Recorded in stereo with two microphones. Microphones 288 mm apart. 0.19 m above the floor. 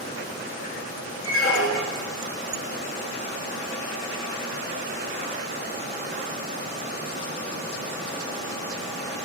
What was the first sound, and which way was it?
A squeak, 50° left (ahead or behind).